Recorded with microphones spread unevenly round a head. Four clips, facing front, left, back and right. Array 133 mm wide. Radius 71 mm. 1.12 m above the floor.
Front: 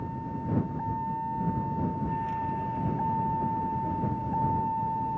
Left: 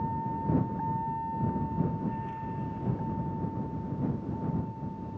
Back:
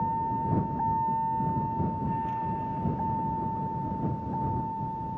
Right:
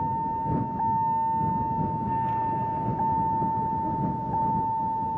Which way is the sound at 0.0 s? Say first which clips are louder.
Right 5 dB, back 7 dB; 120° right.